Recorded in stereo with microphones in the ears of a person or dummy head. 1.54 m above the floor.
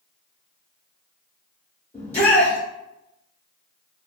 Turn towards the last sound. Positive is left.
turn(degrees=15)  # may be behind; listen again after turning